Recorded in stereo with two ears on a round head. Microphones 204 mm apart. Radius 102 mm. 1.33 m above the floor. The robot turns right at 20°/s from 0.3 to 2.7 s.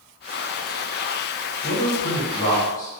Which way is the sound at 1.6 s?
55° left (ahead or behind).